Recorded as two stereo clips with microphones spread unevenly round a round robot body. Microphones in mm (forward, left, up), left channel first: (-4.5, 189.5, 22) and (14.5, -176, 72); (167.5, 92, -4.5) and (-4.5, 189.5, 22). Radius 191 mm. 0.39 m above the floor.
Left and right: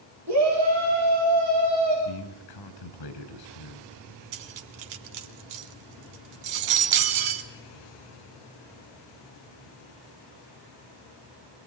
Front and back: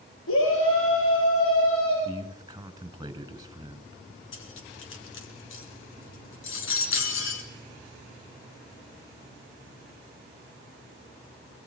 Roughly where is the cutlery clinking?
Right.